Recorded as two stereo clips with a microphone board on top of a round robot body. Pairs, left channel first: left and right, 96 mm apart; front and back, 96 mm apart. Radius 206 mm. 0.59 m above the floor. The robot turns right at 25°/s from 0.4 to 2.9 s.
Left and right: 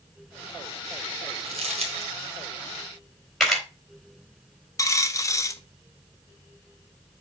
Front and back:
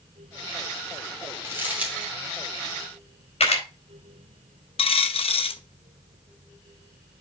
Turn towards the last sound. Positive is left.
turn(degrees=30)